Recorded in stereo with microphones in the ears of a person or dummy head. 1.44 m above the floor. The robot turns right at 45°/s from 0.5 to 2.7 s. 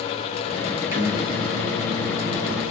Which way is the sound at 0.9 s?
15° right.